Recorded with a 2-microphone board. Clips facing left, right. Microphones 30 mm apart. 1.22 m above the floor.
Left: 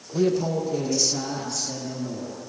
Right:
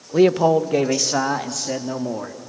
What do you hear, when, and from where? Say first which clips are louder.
0.1 s a man speaking: right 8 dB; 85° right, 0.9 m; by 2.4 s 70° right (ahead or behind), 2.5 m